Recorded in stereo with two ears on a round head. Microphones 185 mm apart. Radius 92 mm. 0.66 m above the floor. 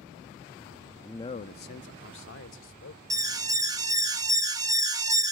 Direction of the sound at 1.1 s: 5° left (ahead or behind).